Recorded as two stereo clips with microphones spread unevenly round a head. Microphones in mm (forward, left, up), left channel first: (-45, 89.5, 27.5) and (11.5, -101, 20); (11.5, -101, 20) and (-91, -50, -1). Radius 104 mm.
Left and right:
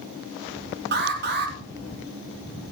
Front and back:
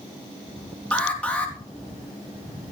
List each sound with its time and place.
0.9 s an alarm: 105° right, 4 m